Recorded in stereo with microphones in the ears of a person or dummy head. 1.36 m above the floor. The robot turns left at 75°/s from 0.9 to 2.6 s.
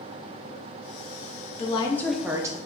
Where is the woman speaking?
40° left, 0.5 m; by 2.6 s 35° right, 0.5 m.